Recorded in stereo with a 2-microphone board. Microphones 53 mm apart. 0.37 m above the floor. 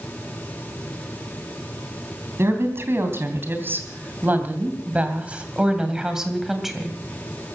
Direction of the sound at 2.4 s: 55° right (ahead or behind).